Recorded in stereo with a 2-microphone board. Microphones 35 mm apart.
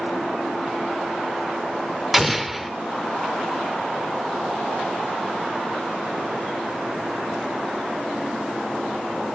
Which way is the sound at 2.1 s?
5° right (ahead or behind).